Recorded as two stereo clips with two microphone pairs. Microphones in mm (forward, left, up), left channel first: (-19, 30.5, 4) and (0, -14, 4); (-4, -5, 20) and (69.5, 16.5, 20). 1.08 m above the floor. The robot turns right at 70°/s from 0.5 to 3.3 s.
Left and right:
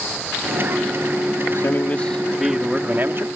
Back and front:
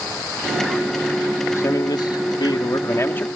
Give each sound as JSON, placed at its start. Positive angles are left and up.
{"t": 1.5, "sound": "a man speaking", "azimuth_deg": 145}